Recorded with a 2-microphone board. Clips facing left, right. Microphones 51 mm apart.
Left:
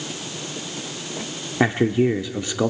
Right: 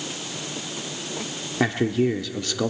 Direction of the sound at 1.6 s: 20° left (ahead or behind).